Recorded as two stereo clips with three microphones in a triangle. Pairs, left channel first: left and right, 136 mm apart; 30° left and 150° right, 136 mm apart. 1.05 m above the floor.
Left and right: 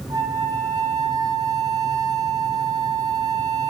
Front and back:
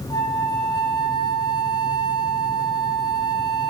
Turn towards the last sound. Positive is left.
turn(degrees=-30)